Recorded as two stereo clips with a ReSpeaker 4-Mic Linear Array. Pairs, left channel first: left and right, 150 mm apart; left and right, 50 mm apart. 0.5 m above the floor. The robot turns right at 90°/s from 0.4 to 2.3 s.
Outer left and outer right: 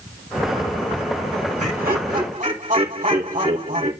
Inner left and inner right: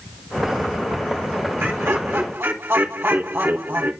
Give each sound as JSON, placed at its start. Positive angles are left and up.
{"t": 1.6, "sound": "laughter", "azimuth_deg": -120, "distance_m": 2.5}